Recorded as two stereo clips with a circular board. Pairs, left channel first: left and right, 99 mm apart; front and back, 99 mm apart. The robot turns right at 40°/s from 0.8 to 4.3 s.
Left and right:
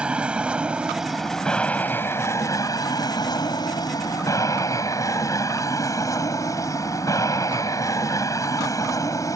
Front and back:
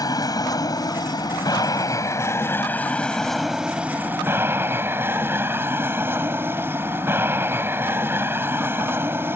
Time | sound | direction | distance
0.0 | an aircraft | 15° right | ?